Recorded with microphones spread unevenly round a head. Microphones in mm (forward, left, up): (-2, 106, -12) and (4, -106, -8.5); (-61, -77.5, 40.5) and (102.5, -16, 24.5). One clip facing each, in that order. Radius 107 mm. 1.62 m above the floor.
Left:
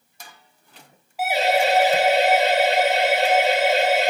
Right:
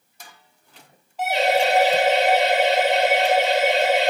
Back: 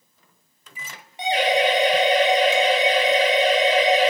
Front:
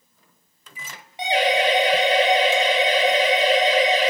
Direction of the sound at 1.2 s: 10° left.